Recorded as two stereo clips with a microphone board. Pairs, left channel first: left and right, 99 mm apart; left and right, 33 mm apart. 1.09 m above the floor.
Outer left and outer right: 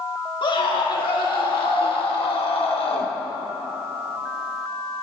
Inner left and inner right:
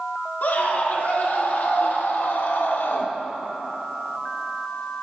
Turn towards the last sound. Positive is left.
turn(degrees=70)  # may be behind; listen again after turning